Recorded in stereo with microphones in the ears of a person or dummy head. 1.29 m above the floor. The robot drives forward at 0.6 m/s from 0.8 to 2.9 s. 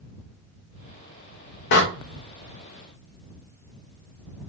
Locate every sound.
1.7 s a door slam: 55° left (ahead or behind), 1.0 m; by 1.8 s 50° left (ahead or behind), 1.0 m